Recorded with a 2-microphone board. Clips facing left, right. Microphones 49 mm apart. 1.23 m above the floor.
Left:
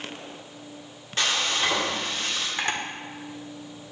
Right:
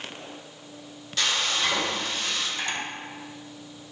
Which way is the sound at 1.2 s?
35° left (ahead or behind).